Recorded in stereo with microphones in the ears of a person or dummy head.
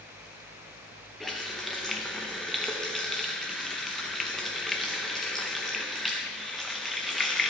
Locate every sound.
1.2 s a running tap: 5° left (ahead or behind), 0.6 m